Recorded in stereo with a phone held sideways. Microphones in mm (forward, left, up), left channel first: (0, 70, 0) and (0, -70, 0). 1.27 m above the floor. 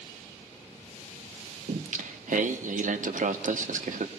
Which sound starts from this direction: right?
Singing, at 1.7 s.